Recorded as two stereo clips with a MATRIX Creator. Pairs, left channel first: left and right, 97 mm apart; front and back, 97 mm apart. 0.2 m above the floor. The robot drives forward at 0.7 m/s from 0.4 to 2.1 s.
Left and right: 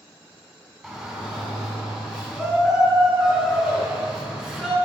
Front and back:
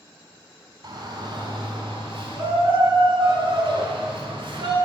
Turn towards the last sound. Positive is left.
turn(degrees=180)